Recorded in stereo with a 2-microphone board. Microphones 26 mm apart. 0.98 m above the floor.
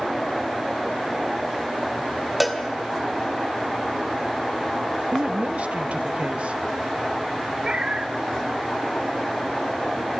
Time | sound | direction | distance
2.4 | a cowbell | 5° right (ahead or behind) | 1.6 m
5.1 | a woman speaking | 65° right (ahead or behind) | 0.9 m
7.6 | a cat meowing | 45° right (ahead or behind) | 1.5 m